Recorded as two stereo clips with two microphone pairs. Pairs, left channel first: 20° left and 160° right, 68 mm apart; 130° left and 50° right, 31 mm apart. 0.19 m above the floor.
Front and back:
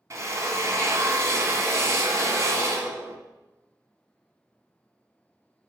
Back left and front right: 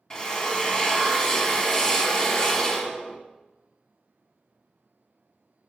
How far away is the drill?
About 1.1 m.